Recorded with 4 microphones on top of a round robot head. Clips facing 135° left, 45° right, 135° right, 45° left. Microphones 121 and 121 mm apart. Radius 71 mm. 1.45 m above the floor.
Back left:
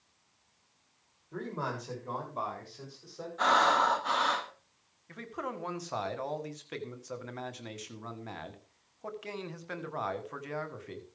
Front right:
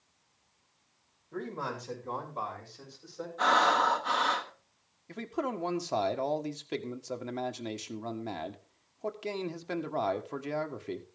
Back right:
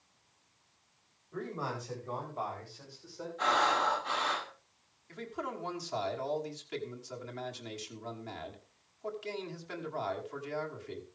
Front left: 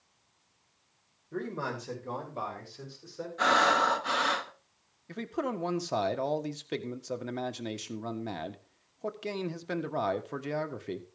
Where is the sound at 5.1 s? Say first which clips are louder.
Front right 5 dB, front left 6 dB; 15° left, 1.6 m.